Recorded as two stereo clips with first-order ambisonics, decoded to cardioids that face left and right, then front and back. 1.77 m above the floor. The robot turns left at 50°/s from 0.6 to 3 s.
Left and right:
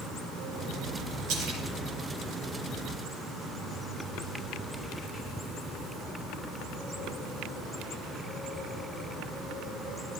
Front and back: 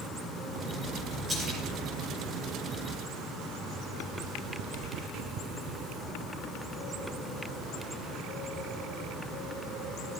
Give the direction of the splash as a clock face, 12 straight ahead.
3 o'clock.